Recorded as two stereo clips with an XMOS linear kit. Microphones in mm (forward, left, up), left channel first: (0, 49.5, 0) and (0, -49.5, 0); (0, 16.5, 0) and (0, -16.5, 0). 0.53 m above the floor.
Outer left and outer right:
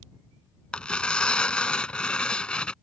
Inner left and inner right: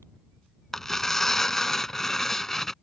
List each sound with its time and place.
0.7 s tearing paper: 10° left (ahead or behind)